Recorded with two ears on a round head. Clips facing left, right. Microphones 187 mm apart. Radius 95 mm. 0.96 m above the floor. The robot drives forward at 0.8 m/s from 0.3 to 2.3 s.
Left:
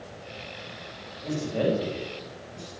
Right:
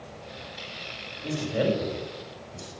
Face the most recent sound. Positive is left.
turn(degrees=-10)  # may be behind; listen again after turning